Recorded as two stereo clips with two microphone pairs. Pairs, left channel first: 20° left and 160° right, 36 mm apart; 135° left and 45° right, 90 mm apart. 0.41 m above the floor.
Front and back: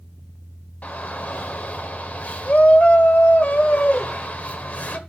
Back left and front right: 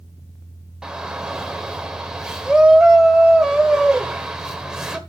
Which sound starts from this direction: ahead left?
A shout, at 0.8 s.